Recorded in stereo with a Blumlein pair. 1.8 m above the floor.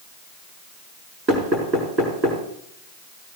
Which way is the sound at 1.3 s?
25° right.